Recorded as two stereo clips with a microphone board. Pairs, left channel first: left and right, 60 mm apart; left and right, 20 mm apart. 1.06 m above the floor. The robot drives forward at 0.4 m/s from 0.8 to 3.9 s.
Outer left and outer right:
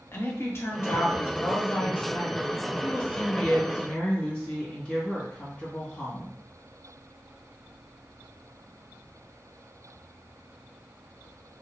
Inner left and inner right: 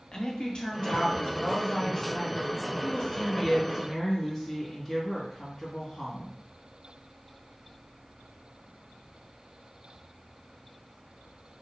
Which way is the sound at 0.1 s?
45° left (ahead or behind).